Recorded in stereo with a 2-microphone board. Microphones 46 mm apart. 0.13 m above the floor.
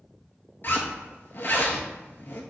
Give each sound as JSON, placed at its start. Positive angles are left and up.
{"t": 0.6, "sound": "a zipper", "side_deg": 50, "distance_m": 0.6}